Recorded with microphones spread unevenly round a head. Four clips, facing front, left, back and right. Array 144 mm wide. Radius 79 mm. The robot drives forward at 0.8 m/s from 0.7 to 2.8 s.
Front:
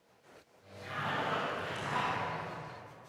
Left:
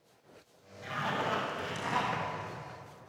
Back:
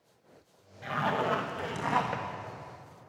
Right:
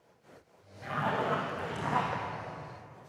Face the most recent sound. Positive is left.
turn(degrees=-160)